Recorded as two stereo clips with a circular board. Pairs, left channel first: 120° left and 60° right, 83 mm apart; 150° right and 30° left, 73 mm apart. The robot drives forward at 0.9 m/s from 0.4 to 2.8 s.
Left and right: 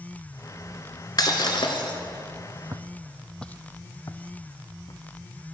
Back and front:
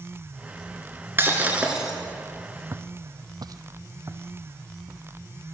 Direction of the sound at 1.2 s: 85° left.